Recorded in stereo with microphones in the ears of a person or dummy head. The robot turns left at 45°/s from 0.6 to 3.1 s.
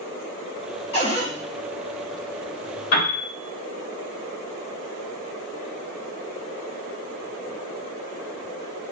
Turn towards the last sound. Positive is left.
turn(degrees=65)  # may be behind; listen again after turning